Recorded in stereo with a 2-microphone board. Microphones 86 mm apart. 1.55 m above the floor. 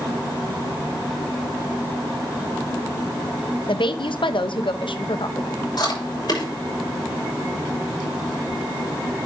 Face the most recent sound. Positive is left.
turn(degrees=55)  # may be behind; listen again after turning